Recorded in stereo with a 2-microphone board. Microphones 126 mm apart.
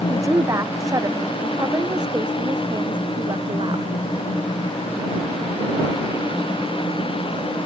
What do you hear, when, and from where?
0.1 s a woman speaking: 25° right (ahead or behind); by 3.9 s 40° right (ahead or behind)